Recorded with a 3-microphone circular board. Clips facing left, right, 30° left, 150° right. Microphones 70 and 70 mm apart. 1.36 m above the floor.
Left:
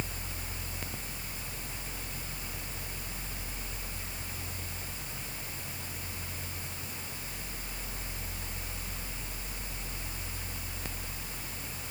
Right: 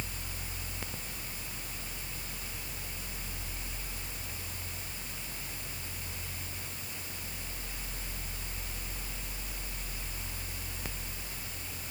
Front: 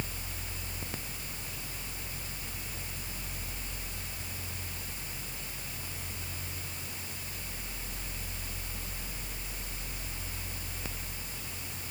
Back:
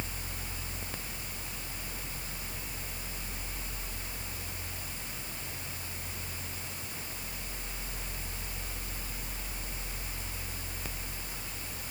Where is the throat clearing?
No throat clearing in this recording.